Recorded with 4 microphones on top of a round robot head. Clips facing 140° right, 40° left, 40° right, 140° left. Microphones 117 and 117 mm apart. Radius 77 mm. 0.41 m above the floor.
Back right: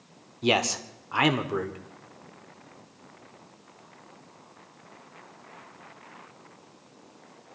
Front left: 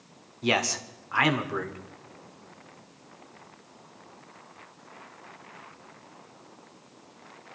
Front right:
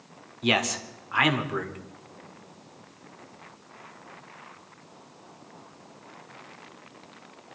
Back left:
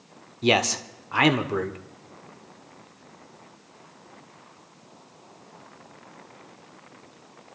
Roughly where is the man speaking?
Behind.